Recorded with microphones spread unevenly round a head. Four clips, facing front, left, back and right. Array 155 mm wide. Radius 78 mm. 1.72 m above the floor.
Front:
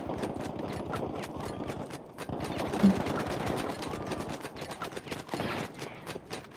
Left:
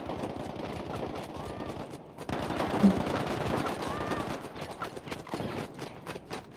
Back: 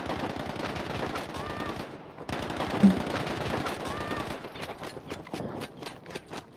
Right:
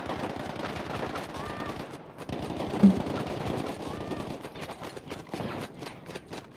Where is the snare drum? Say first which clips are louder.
Right 4 dB, back 3 dB; 105° right, 1.8 m.